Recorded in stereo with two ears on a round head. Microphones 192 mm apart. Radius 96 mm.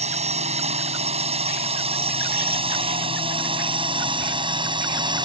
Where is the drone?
35° right (ahead or behind); by 5.2 s 25° right (ahead or behind).